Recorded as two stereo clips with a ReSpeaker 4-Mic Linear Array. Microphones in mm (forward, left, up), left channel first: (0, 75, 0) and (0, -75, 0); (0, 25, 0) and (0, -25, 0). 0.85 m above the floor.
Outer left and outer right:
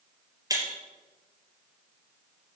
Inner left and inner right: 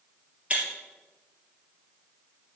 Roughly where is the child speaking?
I don't hear a child speaking.